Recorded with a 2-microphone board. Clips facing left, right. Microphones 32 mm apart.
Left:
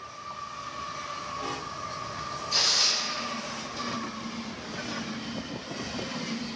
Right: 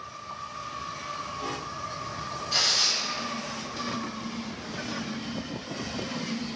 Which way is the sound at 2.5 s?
30° right (ahead or behind).